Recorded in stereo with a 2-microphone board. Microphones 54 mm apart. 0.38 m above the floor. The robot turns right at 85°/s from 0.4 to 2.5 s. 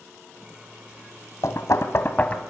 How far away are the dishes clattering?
I don't hear dishes clattering.